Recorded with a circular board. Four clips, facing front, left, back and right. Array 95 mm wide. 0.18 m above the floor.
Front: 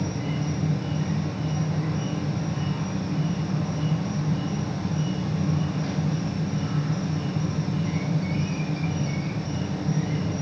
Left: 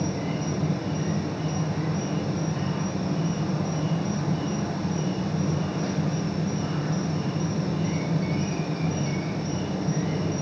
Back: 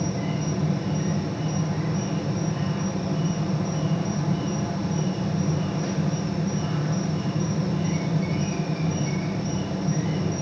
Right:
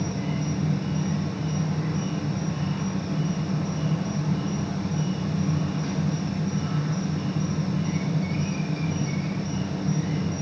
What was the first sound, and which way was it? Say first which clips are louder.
An insect: left 1 dB, back 1 dB; 125° left.